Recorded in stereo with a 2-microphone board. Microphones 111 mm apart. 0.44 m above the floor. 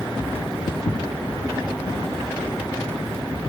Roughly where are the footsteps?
Left.